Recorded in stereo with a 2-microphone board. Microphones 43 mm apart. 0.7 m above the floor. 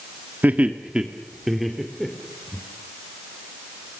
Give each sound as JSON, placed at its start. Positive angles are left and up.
{"t": 0.4, "sound": "laughter", "side_deg": -40, "distance_m": 1.6}